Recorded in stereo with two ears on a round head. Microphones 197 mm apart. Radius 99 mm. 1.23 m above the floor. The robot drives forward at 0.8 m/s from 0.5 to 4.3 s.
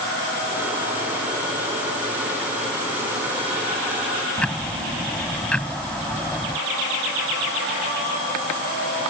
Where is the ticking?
5° left (ahead or behind).